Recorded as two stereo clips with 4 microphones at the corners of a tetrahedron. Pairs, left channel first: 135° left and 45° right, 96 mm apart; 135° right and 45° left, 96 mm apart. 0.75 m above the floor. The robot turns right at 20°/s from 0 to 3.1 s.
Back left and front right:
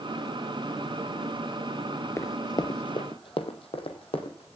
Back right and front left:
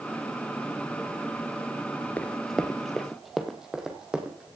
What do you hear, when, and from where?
2.2 s running footsteps: 165° left, 0.8 m; by 4.6 s 125° left, 3 m